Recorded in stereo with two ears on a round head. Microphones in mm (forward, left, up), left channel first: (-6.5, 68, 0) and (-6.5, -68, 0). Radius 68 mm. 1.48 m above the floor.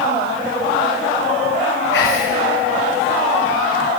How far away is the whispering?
About 1.5 m.